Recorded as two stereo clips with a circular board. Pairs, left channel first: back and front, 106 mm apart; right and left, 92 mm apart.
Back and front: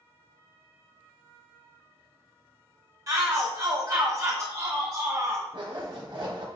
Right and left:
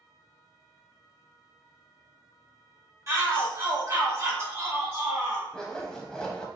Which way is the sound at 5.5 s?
10° right.